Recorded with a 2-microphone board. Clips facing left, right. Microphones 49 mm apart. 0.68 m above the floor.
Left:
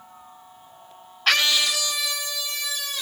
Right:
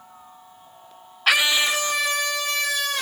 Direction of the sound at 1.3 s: 10° right (ahead or behind).